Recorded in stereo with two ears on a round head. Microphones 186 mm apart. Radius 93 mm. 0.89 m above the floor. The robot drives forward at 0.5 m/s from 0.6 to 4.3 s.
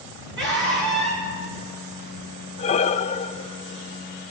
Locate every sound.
0.4 s a scream: 60° right (ahead or behind), 10 m
2.6 s breathing: 30° left (ahead or behind), 0.6 m; by 4.3 s 20° left (ahead or behind), 1.0 m